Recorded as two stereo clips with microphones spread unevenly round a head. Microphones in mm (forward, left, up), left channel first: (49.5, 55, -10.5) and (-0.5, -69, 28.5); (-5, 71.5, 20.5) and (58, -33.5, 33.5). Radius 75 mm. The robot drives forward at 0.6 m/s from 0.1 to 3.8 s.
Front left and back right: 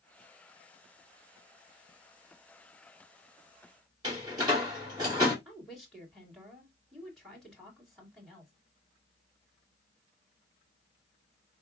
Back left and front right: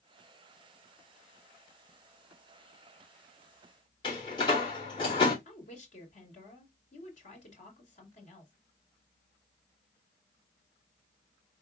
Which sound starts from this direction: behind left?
A woman speaking, at 5.5 s.